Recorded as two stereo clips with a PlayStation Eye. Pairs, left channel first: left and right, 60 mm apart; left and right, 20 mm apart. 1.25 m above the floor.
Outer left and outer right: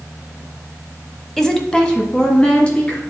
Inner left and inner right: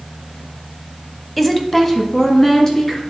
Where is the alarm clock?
No alarm clock in this recording.